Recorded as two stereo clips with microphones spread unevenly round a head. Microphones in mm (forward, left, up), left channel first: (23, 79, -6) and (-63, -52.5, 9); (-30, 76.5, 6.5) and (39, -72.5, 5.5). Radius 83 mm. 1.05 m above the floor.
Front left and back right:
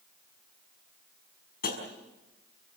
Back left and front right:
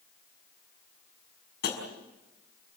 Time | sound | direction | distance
1.6 | tapping | 85° left | 5.5 m